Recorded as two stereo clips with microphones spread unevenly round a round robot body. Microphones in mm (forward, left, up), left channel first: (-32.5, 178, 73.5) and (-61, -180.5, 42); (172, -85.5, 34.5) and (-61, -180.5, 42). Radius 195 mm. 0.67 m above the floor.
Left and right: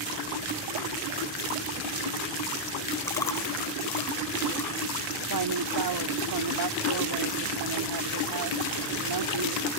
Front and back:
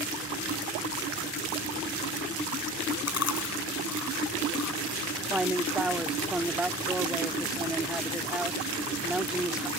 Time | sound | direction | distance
3.1 | chewing | 5° left | ?
5.3 | a man speaking | 70° right | ?